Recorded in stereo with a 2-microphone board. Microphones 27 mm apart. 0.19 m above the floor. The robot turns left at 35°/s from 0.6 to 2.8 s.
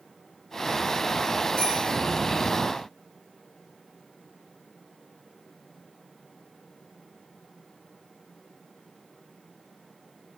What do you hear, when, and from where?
1.6 s a bicycle bell: 30° left (ahead or behind), 8.5 m; by 1.8 s 40° left (ahead or behind), 8.5 m